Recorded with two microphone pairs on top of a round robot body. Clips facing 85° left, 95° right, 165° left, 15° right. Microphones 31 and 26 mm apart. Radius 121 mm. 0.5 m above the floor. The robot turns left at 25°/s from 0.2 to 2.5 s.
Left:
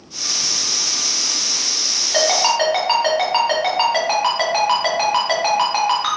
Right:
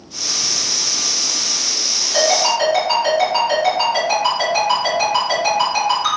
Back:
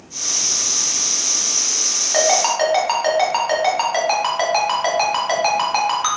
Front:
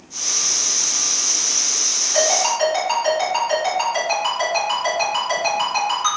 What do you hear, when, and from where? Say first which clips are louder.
2.1 s a ringtone: right 1 dB, back 2 dB; 130° left, 1.9 m; by 6.2 s 125° left, 1.9 m